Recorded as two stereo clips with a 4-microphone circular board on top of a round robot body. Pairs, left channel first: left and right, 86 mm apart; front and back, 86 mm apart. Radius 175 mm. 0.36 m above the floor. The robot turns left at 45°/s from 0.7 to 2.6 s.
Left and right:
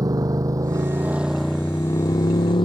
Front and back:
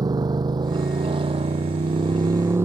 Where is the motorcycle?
140° right; by 2.6 s 120° left.